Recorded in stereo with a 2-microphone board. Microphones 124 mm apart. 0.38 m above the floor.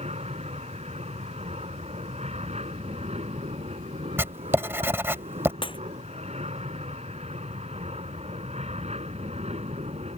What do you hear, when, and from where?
0.0 s an aircraft: 60° right (ahead or behind)
4.2 s writing: 20° right (ahead or behind)
5.6 s breaking glass: 45° left (ahead or behind)